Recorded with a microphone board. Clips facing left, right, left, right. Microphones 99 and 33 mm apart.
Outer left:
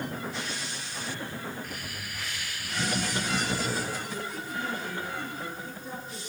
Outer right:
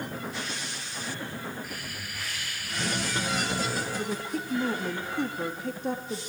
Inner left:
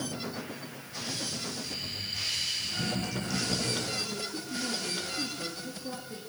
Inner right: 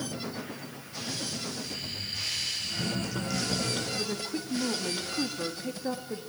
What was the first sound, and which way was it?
Laughter, 5° right (ahead or behind).